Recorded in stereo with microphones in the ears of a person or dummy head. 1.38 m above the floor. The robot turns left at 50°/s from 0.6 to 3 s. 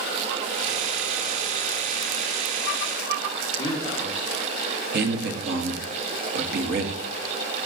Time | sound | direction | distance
3.6 | a man speaking | 20° left (ahead or behind) | 1.7 m
4.9 | a man speaking | 60° right (ahead or behind) | 1.0 m